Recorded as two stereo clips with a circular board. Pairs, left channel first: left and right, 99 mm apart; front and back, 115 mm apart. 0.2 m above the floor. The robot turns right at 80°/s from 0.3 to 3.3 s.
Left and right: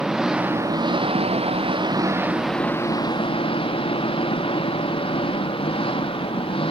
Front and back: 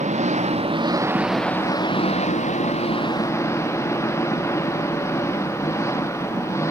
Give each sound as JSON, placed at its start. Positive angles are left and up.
{"t": 0.0, "sound": "an engine running", "azimuth_deg": -175}